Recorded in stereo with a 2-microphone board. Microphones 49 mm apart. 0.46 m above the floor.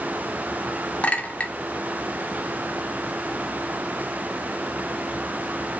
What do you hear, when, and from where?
1.0 s a clink: 30° left (ahead or behind), 0.6 m